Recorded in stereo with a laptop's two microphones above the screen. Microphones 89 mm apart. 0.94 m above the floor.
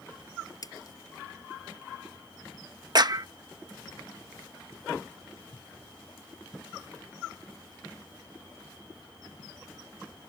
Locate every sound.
0.6 s a splash: 45° left (ahead or behind)
3.0 s a clap: 50° right (ahead or behind)